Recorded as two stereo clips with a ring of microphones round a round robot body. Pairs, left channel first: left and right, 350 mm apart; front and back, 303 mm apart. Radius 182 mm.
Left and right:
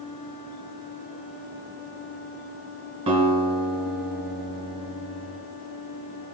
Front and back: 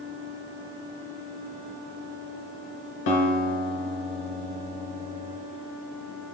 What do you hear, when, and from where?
3.1 s a guitar: 15° right, 1.5 m